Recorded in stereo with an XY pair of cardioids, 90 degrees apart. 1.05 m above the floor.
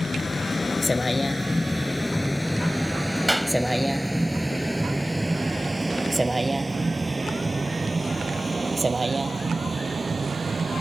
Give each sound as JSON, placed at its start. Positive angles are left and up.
{"t": 0.0, "sound": "a vehicle", "azimuth_deg": 35}
{"t": 3.3, "sound": "a clap", "azimuth_deg": 0}